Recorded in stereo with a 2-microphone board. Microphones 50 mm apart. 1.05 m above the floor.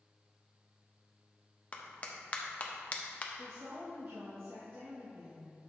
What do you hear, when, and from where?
1.7 s a clap: 30° left (ahead or behind), 0.8 m
3.3 s a woman speaking: 60° right (ahead or behind), 1.4 m